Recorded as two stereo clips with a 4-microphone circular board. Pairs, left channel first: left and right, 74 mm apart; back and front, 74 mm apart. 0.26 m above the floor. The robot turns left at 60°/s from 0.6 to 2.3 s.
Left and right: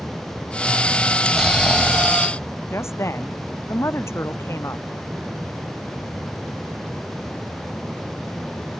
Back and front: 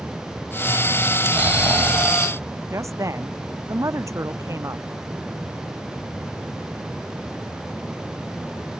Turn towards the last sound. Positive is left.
turn(degrees=40)